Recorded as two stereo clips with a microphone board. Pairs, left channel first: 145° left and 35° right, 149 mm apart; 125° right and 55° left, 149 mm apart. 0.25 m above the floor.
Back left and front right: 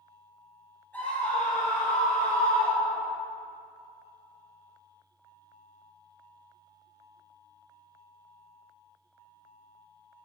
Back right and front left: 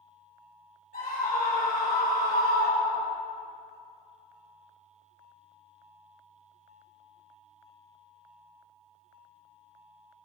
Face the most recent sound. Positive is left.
turn(degrees=-160)